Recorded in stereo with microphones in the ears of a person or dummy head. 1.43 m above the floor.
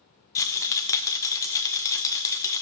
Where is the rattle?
20° left (ahead or behind), 0.5 m.